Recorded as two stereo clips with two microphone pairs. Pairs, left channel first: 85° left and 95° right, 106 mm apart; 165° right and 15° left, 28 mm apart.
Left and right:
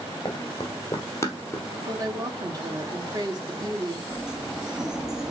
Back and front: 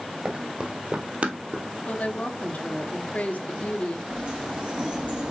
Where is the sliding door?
15° right, 1.5 m.